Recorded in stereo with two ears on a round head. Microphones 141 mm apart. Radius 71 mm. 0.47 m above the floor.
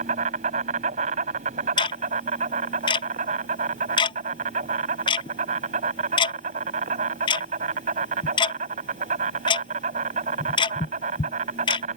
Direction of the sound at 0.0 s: 50° right (ahead or behind).